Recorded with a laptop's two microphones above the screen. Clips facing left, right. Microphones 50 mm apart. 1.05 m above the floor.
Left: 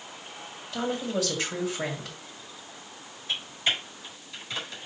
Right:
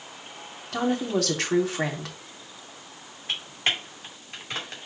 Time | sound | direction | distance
0.7 | a woman speaking | 75° right (ahead or behind) | 3 m
3.3 | typing on a keyboard | 55° right (ahead or behind) | 2 m